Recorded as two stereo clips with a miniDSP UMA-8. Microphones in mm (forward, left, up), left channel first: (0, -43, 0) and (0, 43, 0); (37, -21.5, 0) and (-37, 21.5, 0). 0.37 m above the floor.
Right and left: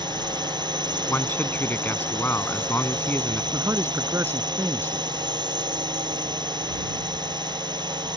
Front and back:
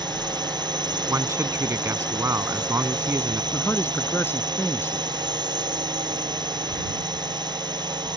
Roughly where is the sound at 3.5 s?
Ahead left.